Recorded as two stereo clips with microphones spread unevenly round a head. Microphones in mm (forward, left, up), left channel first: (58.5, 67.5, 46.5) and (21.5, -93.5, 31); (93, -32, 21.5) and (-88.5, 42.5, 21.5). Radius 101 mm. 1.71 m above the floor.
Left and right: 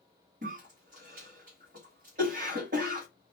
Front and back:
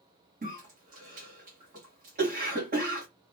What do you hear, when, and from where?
0.4 s a cough: 155° right, 1.3 m